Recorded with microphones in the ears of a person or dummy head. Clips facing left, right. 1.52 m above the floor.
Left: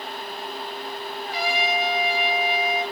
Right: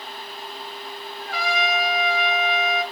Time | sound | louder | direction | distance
1.2 | a trumpet | right 1 dB | 45° right (ahead or behind) | 1.7 m